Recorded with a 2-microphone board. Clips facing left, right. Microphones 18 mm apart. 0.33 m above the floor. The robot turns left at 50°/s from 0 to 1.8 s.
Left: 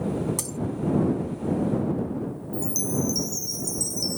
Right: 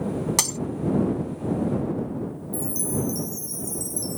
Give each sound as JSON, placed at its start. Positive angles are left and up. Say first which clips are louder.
{"t": 0.4, "sound": "breaking glass", "louder": "right 8 dB", "side_deg": -60}
{"t": 2.5, "sound": "a chime", "louder": "left 1 dB", "side_deg": 40}